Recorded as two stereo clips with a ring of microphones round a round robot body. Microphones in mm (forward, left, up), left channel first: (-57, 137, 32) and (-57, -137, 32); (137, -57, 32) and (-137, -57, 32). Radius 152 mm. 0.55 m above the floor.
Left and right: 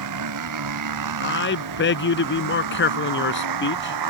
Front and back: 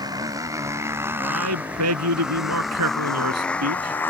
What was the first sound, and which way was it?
A motorcycle, 105° right.